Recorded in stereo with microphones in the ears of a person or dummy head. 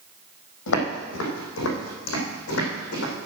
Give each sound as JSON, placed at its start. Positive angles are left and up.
{"t": 0.7, "sound": "footsteps", "side_deg": 70, "distance_m": 4.0}